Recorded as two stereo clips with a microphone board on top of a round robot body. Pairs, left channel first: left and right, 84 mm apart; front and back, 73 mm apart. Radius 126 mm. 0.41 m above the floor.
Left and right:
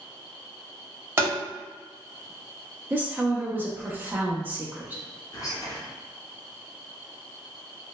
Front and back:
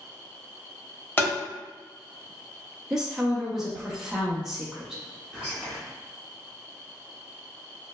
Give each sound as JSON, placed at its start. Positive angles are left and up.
{"t": 1.2, "sound": "tapping", "azimuth_deg": -50, "distance_m": 1.4}
{"t": 2.9, "sound": "a woman speaking", "azimuth_deg": -105, "distance_m": 0.8}
{"t": 5.3, "sound": "whispering", "azimuth_deg": 105, "distance_m": 1.4}